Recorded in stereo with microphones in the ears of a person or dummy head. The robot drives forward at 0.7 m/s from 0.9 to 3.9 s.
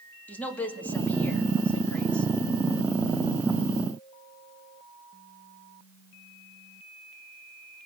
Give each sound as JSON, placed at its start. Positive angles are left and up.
{"t": 0.3, "sound": "a woman speaking", "side_deg": 10, "distance_m": 2.0}